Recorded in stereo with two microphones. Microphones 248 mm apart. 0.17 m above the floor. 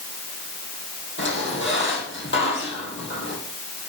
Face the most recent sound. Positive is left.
turn(degrees=50)  # may be behind; listen again after turning